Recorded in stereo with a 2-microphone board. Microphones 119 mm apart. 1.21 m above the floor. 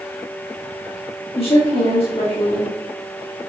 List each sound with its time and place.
1.4 s a woman speaking: 50° left (ahead or behind), 2.5 m